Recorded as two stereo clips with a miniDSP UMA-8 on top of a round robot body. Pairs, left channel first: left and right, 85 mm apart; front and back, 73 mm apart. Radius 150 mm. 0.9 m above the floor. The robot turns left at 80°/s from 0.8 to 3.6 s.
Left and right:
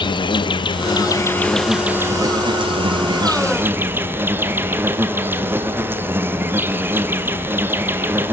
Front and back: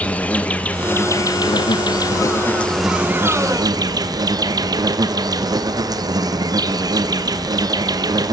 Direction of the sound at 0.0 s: 70° left.